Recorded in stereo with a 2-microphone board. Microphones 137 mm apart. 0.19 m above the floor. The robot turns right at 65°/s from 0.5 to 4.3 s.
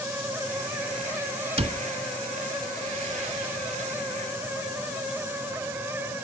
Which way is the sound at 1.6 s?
45° right (ahead or behind).